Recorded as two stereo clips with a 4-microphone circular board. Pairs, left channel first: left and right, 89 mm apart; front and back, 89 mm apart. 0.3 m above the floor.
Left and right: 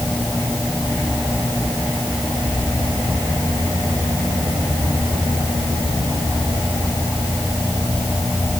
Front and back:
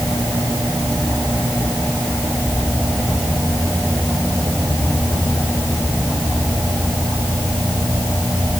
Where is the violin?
No violin in this recording.